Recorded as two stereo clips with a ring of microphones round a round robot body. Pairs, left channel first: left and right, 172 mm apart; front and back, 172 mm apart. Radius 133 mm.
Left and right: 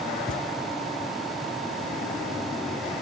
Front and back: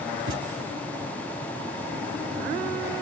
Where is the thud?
175° left, 1.4 m.